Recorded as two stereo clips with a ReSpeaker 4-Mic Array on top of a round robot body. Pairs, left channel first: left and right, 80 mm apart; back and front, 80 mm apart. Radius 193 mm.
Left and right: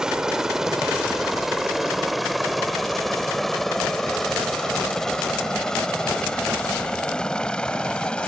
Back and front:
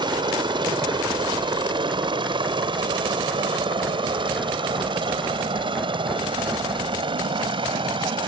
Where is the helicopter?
10° right; by 8.3 s 15° left.